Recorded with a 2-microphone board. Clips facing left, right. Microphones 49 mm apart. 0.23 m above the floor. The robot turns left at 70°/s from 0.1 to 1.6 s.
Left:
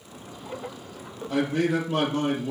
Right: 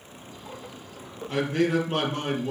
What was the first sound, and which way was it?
A man speaking, 60° right (ahead or behind).